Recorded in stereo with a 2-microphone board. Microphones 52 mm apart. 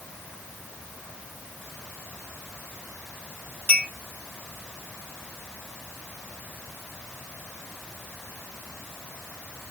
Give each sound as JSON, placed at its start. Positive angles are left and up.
{"t": 3.7, "sound": "a clink", "side_deg": 40, "distance_m": 2.5}